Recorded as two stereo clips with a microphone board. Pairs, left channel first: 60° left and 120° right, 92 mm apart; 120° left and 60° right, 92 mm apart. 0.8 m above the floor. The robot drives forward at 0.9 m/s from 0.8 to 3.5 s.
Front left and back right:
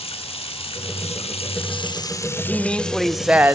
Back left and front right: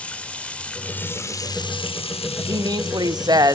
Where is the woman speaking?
15° right, 1.2 m; by 3.6 s 65° right, 0.5 m.